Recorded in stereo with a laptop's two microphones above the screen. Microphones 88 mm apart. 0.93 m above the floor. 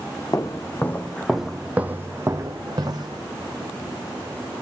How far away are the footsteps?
About 2 m.